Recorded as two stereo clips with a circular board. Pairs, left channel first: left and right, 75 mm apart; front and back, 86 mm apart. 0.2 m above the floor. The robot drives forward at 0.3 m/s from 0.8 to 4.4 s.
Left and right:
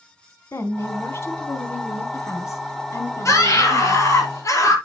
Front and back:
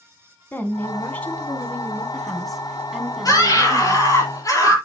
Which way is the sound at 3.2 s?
45° left.